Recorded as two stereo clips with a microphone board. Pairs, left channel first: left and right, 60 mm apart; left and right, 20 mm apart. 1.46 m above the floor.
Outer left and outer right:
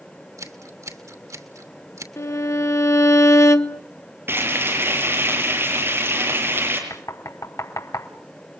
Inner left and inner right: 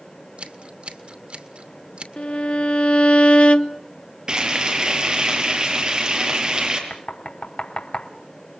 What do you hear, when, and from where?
0.4 s scissors: 70° right (ahead or behind), 2.5 m
2.2 s a violin: 55° left (ahead or behind), 1.1 m
4.3 s frying: 40° right (ahead or behind), 7 m
6.9 s knocking: 70° left (ahead or behind), 3 m